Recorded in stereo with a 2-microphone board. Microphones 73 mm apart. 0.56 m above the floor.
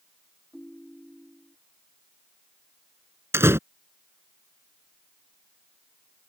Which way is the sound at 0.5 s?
Centre (ahead or behind).